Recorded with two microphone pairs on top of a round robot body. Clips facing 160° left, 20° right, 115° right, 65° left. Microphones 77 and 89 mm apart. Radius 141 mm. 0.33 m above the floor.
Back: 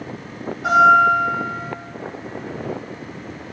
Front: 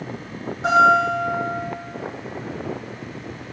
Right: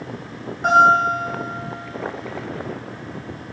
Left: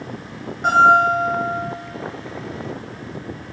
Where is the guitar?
25° right, 1.1 m.